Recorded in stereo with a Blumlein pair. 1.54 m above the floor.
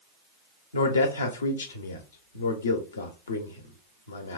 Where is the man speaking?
70° left, 0.6 m.